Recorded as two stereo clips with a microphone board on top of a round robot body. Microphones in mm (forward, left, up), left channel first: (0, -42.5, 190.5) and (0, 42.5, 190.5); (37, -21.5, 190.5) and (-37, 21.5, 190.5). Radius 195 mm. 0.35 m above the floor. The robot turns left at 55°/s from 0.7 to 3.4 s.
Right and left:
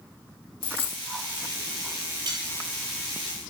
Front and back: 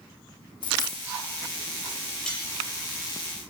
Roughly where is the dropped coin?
Ahead right.